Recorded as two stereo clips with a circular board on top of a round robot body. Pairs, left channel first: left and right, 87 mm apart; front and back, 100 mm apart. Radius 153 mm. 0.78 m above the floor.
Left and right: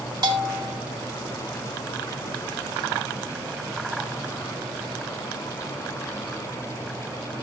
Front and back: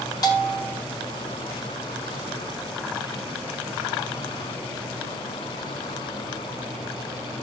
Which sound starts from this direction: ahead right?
A bell, at 0.2 s.